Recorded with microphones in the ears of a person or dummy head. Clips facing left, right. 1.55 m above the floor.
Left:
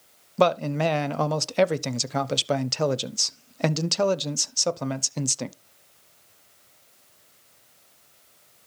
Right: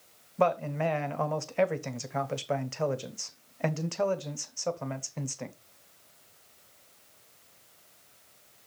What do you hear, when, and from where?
0.4 s a man speaking: 55° left (ahead or behind), 0.7 m